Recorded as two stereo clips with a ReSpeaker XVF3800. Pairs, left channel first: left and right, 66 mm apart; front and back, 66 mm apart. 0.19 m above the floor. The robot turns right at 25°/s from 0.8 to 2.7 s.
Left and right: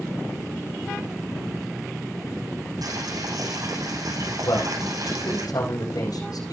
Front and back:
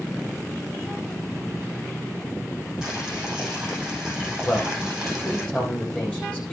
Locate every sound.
2.8 s boiling: 100° right, 10 m
4.5 s a man speaking: 70° left, 7 m